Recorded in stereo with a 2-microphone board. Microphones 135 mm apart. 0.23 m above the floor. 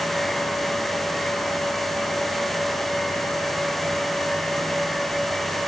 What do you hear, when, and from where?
Only background noise.